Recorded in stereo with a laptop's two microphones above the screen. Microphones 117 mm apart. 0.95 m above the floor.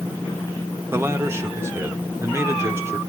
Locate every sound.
0.9 s a man speaking: 25° right (ahead or behind), 1.3 m